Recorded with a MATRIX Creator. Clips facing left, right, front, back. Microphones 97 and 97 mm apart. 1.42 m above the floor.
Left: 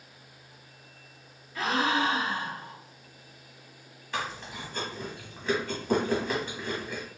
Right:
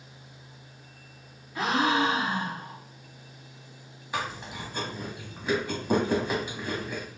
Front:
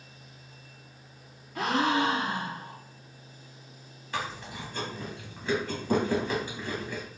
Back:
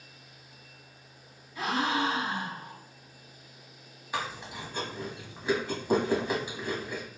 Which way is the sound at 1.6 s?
20° right.